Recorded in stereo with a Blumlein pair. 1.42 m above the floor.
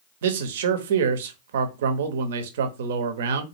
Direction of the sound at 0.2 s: 60° right.